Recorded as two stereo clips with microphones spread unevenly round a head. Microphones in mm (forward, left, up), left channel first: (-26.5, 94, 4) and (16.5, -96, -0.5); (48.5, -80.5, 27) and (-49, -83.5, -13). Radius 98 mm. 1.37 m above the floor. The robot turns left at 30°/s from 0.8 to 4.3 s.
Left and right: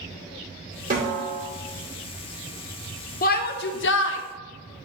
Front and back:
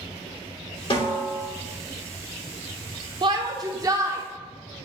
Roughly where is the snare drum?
Ahead right.